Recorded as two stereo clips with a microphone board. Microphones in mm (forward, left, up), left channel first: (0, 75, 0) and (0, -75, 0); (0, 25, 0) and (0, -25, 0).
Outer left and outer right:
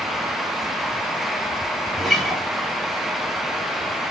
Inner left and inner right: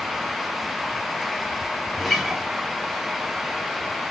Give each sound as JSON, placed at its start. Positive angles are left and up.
{"t": 1.9, "sound": "a guitar", "side_deg": 0, "distance_m": 0.5}